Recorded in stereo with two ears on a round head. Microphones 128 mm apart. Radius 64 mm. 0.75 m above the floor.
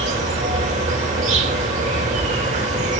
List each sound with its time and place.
0.0 s an insect: 50° right (ahead or behind), 2 m